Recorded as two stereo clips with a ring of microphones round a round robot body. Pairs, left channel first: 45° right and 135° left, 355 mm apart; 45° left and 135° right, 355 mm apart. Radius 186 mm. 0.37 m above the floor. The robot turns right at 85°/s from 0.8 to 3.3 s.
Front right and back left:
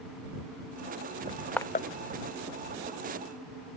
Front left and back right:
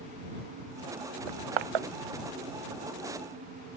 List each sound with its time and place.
1.3 s crushing: 155° right; by 1.9 s 105° right